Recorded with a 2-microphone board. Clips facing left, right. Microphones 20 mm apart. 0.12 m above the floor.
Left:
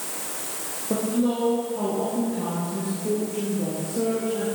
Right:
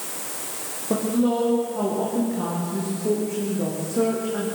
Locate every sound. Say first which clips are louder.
0.9 s a woman speaking: right 2 dB; 15° right (ahead or behind), 8 m; by 4.5 s 40° right (ahead or behind), 8 m